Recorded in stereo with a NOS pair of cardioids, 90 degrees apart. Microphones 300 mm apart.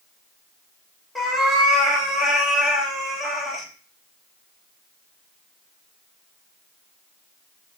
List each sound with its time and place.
1.1 s a cat meowing: straight ahead, 1.1 m